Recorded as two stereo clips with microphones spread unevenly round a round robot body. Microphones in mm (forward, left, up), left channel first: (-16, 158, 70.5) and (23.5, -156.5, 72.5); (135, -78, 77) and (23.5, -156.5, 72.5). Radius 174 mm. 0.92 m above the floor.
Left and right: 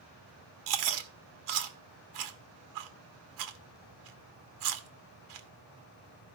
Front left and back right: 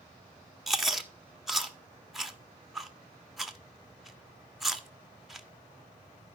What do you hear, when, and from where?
0.7 s chewing: 55° right, 1.7 m